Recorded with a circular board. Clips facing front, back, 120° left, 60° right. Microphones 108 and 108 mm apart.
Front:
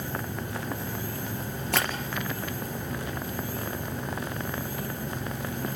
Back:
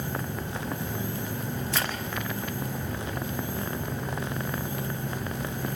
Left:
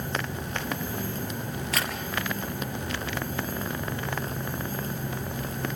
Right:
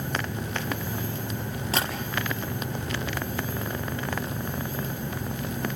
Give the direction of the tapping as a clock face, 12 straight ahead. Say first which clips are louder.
Front 5 dB, right 3 dB; 12 o'clock.